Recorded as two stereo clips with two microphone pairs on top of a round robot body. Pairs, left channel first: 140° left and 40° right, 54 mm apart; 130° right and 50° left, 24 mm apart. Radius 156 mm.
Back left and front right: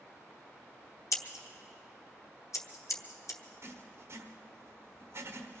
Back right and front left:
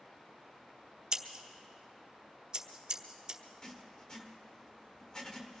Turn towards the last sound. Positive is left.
turn(degrees=-75)